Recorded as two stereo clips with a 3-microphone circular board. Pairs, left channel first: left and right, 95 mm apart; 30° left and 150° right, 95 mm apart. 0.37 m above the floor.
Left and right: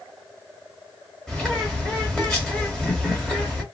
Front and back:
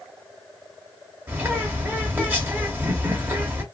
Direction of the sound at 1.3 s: 165° left.